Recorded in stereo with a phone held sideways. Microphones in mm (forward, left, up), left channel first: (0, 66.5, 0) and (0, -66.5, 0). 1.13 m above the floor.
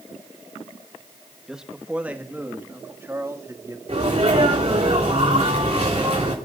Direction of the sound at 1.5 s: 5° right (ahead or behind).